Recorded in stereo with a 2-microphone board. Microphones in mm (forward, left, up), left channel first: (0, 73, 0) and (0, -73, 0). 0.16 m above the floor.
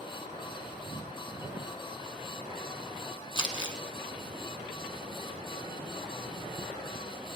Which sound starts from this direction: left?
Crumpling, at 3.4 s.